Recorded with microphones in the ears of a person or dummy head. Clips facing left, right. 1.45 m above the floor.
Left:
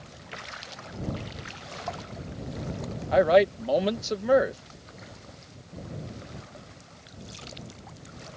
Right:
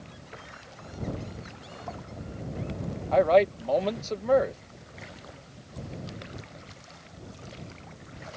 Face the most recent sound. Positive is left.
turn(degrees=15)  # may be behind; listen again after turning